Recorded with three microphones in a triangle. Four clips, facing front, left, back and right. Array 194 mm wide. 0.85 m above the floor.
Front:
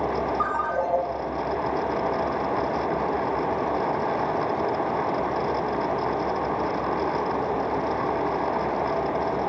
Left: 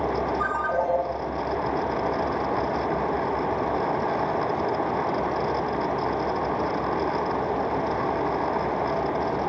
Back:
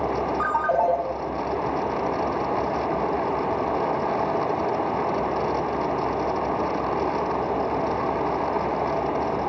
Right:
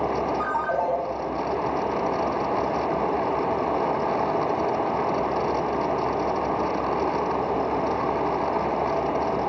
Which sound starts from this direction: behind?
A ringtone, at 0.4 s.